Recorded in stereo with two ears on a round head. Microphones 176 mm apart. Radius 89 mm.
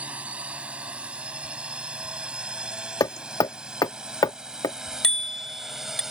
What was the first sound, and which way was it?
A drone, 5° right (ahead or behind).